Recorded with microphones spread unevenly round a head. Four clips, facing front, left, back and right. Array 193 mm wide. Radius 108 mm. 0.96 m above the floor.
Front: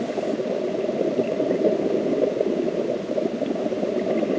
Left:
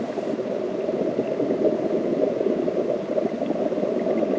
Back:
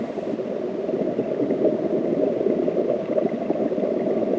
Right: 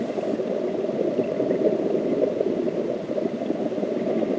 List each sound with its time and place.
Only background noise.